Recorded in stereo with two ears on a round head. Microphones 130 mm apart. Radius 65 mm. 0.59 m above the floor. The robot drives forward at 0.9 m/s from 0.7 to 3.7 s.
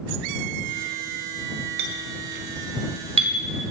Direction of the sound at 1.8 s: 70° right (ahead or behind).